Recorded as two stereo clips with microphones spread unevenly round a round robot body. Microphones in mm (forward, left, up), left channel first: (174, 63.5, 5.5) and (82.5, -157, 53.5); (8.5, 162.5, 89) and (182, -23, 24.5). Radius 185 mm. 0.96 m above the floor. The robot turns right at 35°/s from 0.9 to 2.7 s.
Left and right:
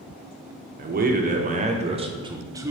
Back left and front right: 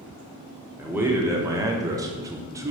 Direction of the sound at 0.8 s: 85° right.